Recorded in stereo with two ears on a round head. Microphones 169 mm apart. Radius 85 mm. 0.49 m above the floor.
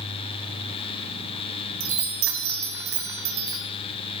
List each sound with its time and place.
1.8 s a chime: 80° right, 1.5 m